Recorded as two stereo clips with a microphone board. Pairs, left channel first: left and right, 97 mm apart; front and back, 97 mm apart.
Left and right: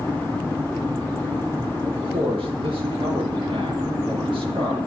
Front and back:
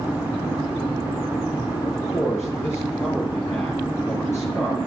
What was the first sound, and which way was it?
A man speaking, 60° right.